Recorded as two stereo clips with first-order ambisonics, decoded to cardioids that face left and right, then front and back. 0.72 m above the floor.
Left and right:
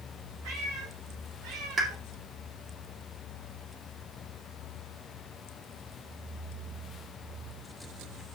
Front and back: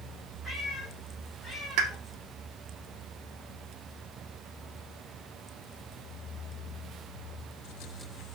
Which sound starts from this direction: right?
A cat meowing, at 0.4 s.